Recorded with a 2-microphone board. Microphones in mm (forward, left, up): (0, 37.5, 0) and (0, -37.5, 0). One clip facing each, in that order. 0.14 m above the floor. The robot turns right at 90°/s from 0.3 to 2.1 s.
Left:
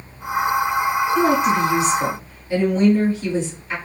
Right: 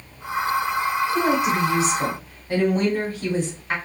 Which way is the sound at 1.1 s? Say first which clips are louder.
Left 4 dB; 175° left.